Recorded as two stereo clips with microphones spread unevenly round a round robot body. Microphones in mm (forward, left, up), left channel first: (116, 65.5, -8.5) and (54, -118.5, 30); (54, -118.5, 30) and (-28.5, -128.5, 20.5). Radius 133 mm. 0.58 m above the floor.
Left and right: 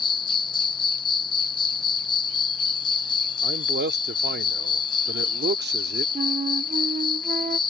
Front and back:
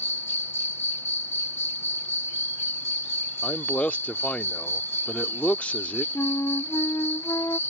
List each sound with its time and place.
0.0 s an insect: 65° left
3.4 s a man speaking: 70° right
6.2 s a flute: 50° right